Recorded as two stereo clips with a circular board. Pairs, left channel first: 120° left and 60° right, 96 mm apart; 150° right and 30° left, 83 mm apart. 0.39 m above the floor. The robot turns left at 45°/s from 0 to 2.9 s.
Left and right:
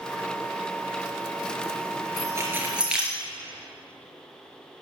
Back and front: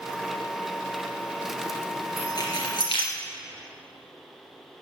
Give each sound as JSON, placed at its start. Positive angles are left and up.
{"t": 2.2, "sound": "keys jangling", "azimuth_deg": -110, "distance_m": 4.0}